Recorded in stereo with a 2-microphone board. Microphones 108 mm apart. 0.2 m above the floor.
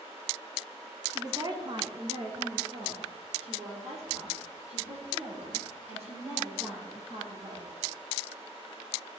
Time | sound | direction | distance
1.1 | a woman speaking | 25° right (ahead or behind) | 1.1 m